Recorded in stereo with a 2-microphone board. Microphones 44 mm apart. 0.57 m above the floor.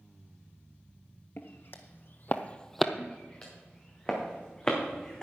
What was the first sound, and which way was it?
Footsteps, 55° left (ahead or behind).